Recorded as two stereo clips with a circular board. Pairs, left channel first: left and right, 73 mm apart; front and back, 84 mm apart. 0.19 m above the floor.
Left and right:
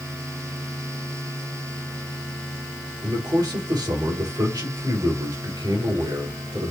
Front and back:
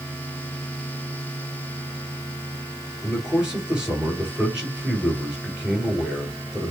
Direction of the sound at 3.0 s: 100° right.